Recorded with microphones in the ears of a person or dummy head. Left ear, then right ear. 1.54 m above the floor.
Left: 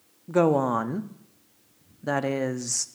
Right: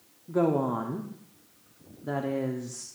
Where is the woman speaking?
70° left (ahead or behind), 0.5 m.